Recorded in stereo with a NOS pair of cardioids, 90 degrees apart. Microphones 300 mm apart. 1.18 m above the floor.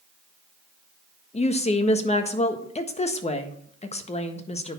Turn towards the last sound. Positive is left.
turn(degrees=20)